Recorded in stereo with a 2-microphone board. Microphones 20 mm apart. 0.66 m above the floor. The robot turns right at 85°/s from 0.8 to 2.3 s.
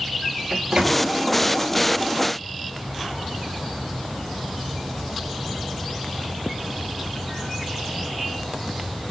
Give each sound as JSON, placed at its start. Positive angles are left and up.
{"t": 0.5, "sound": "a microwave", "side_deg": -45, "distance_m": 1.0}